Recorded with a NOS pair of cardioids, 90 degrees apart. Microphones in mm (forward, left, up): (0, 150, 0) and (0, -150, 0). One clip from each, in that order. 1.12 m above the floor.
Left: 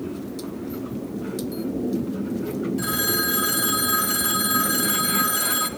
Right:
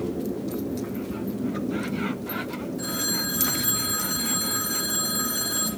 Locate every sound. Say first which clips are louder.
2.8 s a phone ringing: left 3 dB; 70° left, 0.9 m